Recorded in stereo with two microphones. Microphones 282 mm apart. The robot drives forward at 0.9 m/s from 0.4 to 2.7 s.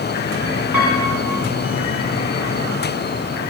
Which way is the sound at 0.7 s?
85° left.